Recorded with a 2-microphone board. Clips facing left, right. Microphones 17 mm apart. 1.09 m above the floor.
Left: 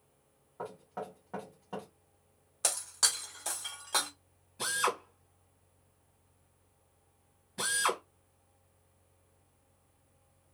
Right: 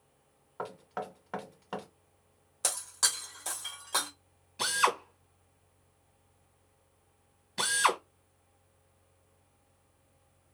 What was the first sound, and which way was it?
Knocking, 75° right (ahead or behind).